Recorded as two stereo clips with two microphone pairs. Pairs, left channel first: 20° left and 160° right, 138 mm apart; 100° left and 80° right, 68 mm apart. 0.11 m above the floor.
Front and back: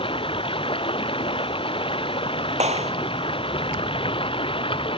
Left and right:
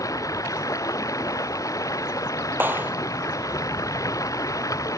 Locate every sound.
0.0 s running water: 70° left
2.6 s a clap: 130° right